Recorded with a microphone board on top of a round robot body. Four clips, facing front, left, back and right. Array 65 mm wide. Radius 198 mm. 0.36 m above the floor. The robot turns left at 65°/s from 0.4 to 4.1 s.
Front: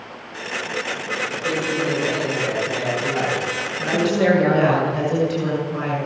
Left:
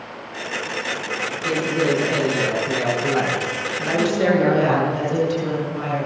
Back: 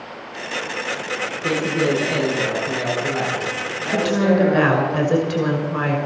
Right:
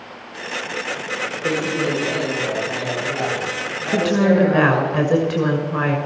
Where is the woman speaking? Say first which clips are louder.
Right 2 dB, even; 110° right, 6 m; by 6.0 s 125° right, 6 m.